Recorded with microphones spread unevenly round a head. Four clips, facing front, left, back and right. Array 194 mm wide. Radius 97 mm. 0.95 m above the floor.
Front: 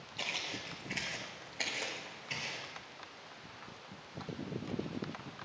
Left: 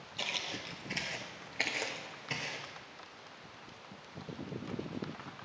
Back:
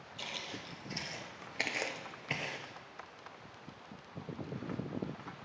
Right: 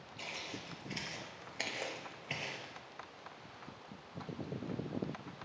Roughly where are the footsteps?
Ahead left.